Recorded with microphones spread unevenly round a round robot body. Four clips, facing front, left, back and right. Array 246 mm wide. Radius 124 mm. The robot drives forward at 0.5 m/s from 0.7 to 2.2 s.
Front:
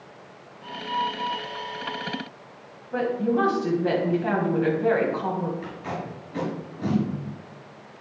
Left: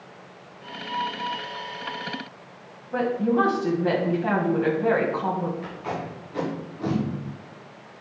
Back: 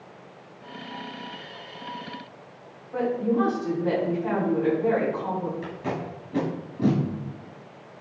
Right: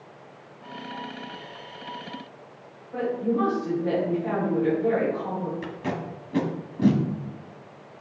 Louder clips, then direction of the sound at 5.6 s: Even, back 2 dB; 110° right.